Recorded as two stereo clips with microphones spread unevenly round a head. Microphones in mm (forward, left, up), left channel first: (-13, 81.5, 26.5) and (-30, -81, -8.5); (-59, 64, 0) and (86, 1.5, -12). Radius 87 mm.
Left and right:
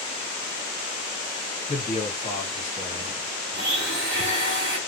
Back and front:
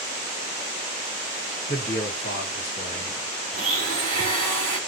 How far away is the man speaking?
About 1.8 m.